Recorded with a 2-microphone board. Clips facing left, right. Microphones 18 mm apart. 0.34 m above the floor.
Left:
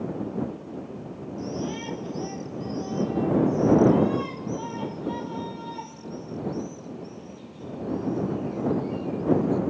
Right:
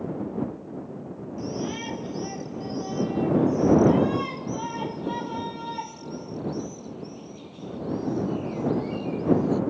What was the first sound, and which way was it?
A shout, 10° right (ahead or behind).